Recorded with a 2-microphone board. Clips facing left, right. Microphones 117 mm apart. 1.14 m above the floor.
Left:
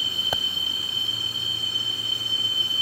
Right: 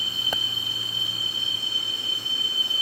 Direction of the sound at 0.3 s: 5° left (ahead or behind).